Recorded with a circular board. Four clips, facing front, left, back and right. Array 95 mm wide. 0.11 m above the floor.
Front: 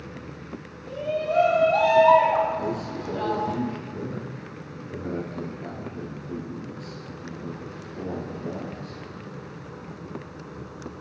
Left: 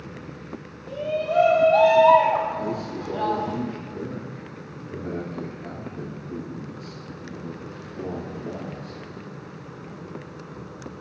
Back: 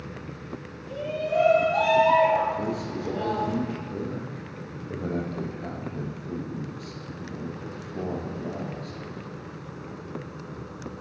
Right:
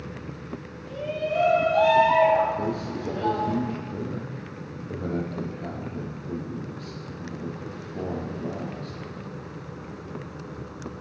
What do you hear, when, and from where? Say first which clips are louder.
0.9 s a shout: left 3 dB, front 2 dB; 70° left, 3 m
2.6 s a man speaking: even, even; 135° right, 3.5 m